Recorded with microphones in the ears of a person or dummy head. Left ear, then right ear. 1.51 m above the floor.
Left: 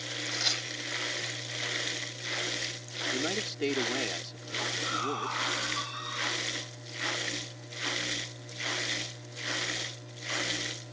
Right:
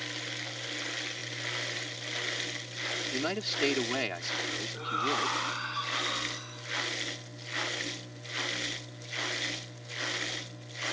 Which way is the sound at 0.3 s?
65° left (ahead or behind).